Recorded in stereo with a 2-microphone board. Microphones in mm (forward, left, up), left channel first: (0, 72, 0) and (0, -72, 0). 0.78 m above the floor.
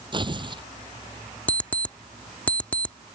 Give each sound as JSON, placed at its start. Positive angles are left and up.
{"t": 0.1, "sound": "tearing paper", "side_deg": -35}
{"t": 1.5, "sound": "an alarm clock", "side_deg": 10}